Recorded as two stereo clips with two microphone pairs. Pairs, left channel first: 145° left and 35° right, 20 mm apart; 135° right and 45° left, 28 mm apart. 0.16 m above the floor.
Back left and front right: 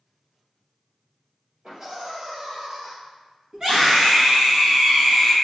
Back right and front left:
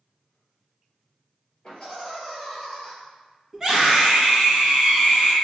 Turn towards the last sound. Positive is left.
turn(degrees=-25)